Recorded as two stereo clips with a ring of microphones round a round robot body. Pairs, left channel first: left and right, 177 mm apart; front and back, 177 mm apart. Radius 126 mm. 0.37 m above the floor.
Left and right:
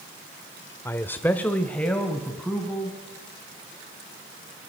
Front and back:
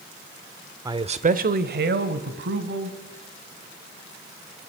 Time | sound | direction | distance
0.8 | a man speaking | 145° left | 0.8 m